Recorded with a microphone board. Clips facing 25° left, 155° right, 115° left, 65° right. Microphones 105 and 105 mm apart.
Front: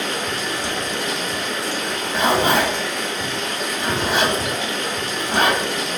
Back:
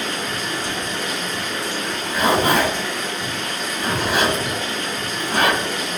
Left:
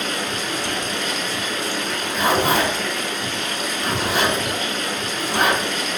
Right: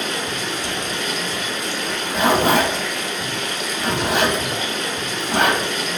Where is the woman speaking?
I don't hear a woman speaking.